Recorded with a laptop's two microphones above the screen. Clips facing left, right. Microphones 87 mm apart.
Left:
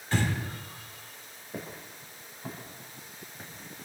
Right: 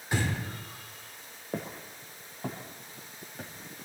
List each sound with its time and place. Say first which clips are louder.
0.1 s breathing: left 2 dB; 15° right (ahead or behind), 3.5 m
1.5 s footsteps: right 4 dB; 75° right (ahead or behind), 5 m; by 3.5 s 70° right (ahead or behind), 6.5 m